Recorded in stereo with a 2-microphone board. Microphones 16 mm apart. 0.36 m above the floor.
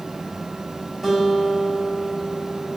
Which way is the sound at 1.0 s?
10° right (ahead or behind).